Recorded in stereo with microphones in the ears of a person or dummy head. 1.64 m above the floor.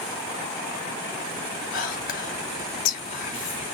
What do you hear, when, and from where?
1.7 s whispering: 45° left (ahead or behind), 0.7 m